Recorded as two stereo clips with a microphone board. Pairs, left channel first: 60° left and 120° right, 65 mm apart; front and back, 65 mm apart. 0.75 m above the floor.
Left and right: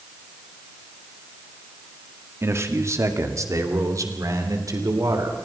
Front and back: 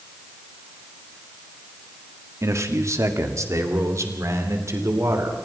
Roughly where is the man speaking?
Behind right.